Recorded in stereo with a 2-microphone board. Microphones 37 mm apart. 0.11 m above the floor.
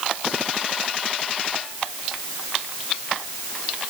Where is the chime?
I don't hear a chime.